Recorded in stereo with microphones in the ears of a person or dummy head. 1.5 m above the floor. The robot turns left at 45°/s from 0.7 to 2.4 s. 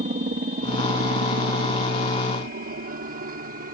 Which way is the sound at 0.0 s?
35° right (ahead or behind).